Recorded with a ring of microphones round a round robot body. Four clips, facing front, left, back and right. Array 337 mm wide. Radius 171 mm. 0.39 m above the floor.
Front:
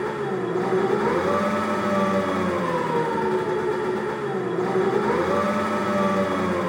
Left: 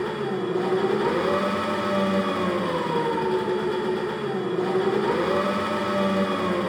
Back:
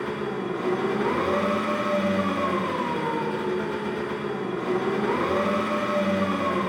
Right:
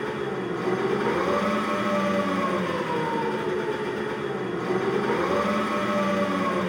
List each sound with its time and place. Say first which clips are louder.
0.0 s an engine running: left 2 dB, front 3 dB; 20° left, 0.7 m